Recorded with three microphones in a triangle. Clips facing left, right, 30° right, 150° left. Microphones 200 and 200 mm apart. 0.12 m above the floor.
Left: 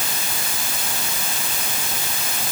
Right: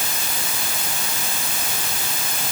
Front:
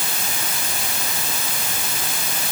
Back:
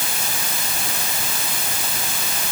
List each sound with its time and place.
Only background noise.